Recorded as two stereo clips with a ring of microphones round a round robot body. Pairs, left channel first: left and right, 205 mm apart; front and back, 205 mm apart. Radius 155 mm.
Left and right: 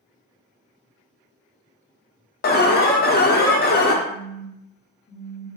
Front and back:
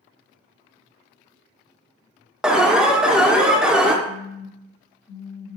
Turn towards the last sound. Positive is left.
turn(degrees=75)